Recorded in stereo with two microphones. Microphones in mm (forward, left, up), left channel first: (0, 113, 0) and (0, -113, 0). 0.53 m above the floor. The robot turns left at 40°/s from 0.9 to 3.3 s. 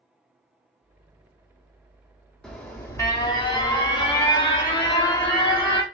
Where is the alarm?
175° left, 0.8 m; by 5.8 s 140° left, 0.8 m.